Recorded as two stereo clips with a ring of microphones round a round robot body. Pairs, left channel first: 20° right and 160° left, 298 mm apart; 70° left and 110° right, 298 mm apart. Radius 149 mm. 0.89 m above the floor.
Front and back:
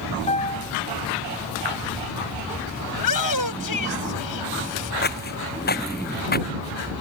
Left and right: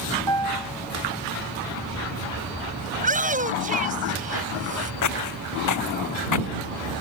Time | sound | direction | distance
0.3 | a piano | 95° right | ?
2.9 | a shout | 45° right | ?
5.0 | footsteps | 35° left | ?